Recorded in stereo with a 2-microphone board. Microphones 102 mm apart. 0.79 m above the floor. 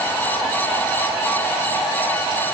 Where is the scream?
No scream in this recording.